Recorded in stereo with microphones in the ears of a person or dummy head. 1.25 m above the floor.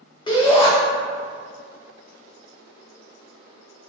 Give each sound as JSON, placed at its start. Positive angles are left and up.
{"t": 0.3, "sound": "a shout", "side_deg": 20, "distance_m": 1.0}